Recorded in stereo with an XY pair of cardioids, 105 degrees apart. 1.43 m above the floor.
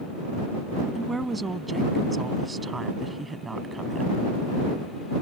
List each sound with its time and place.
0.9 s a woman speaking: 20° right; by 4.2 s 25° right